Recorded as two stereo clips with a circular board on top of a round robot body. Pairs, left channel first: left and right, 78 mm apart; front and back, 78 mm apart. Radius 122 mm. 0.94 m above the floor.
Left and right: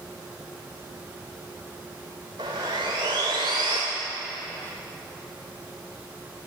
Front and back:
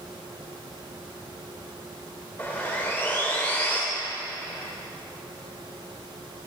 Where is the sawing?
70° right, 0.7 m.